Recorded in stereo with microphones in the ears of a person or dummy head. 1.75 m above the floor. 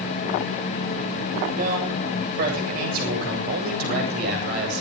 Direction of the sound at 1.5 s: 40° right (ahead or behind).